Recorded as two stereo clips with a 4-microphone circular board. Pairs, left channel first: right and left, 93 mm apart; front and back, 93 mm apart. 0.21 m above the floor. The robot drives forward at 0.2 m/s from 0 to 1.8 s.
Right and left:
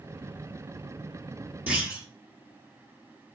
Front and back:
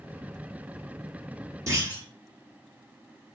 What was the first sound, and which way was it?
A clunk, 155° left.